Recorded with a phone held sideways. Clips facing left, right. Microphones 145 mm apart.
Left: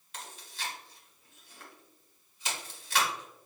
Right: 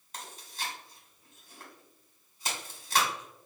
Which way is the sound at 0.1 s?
40° right (ahead or behind).